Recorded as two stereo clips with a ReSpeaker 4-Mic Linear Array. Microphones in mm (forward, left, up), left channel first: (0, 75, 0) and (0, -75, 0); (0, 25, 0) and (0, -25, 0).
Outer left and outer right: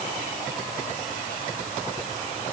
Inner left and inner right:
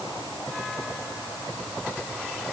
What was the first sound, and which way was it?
Only background noise.